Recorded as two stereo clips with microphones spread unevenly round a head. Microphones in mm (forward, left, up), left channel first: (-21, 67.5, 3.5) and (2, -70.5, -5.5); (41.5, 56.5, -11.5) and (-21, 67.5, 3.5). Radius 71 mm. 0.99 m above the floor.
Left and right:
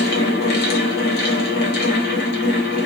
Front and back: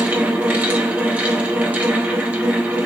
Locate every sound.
0.0 s a fan: 100° left, 1.4 m